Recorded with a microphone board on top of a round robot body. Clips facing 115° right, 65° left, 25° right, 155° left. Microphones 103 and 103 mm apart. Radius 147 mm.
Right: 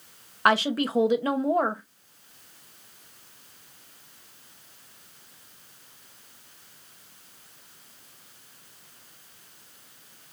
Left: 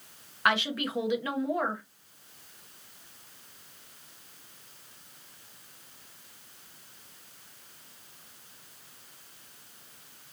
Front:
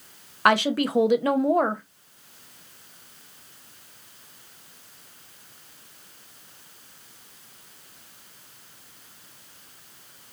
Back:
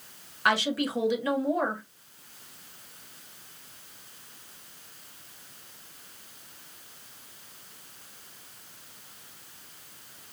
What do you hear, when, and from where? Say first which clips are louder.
0.5 s a woman speaking: right 6 dB, front 6 dB; 60° right, 0.6 m